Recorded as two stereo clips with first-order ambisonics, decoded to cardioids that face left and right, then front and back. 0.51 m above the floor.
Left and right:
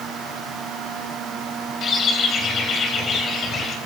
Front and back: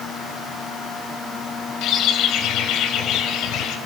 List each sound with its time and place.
1.8 s a bird: 35° left, 3.5 m